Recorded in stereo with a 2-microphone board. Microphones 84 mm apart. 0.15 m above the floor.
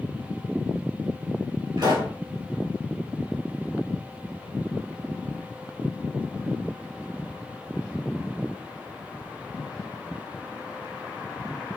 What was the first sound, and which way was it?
A pop, 65° right (ahead or behind).